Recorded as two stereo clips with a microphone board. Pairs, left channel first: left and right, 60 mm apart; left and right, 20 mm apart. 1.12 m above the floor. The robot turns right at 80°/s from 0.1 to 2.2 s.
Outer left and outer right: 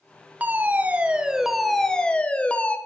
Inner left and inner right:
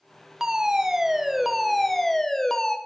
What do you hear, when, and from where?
0.4 s a fire alarm: 30° right (ahead or behind), 1.0 m; by 2.8 s 20° left (ahead or behind), 1.0 m